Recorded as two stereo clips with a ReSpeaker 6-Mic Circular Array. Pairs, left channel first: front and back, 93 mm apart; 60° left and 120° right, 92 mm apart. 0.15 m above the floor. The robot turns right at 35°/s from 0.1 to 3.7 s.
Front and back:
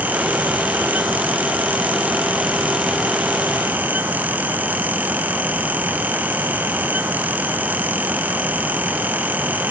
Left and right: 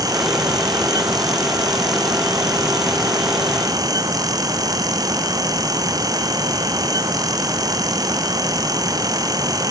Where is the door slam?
No door slam in this recording.